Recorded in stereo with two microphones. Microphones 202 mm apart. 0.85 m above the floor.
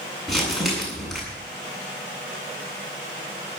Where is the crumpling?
Centre (ahead or behind), 7.5 m.